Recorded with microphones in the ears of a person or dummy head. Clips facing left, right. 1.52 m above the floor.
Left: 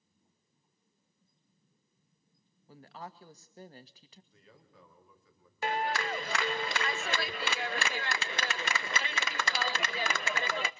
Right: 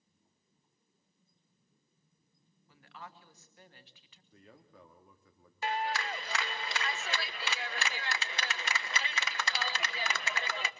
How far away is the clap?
About 0.6 m.